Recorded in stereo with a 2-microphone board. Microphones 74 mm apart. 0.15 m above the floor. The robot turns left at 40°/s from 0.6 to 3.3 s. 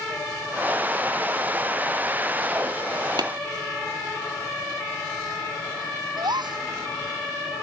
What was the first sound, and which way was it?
Tapping, 70° right (ahead or behind).